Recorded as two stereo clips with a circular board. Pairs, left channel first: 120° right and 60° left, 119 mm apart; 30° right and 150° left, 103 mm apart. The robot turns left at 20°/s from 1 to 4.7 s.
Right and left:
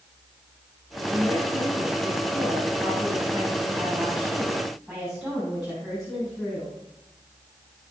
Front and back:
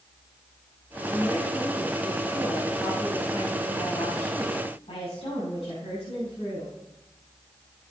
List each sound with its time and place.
1.1 s a woman speaking: 65° left, 5 m; by 6.7 s 10° right, 5 m